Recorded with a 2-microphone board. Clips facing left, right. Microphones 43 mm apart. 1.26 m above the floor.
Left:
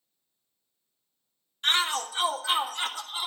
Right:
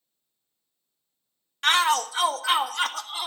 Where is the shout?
70° right (ahead or behind), 1.0 m; by 3.3 s 65° right (ahead or behind), 2 m.